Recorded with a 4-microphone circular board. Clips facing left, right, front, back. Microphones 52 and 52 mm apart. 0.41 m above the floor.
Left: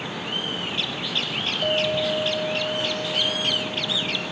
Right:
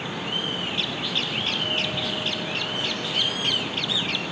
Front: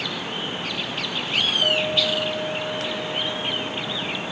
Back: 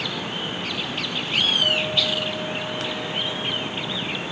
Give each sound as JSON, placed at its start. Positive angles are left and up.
{"t": 1.6, "sound": "a clink", "azimuth_deg": 75}